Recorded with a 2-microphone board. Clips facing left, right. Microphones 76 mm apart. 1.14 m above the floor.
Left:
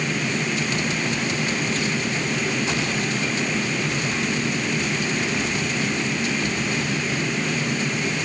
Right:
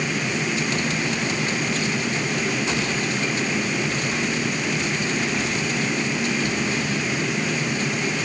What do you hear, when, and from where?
Only background noise.